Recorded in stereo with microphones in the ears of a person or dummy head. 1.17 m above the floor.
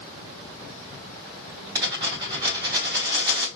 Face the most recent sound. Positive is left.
turn(degrees=-20)  # may be behind; listen again after turning